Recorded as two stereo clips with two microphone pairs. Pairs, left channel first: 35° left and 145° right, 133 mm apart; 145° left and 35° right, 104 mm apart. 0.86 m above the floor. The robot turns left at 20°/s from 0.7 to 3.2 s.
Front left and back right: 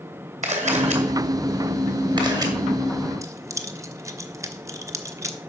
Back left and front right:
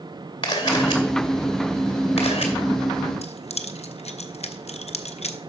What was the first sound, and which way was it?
A camera shutter, 170° right.